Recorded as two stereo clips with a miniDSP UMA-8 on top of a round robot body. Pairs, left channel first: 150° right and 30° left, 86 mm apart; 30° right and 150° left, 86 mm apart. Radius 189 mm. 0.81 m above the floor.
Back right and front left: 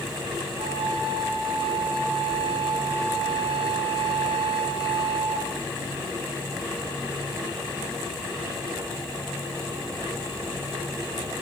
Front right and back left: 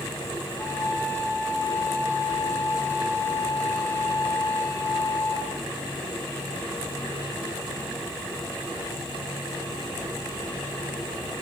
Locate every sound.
0.6 s a flute: 30° left, 8 m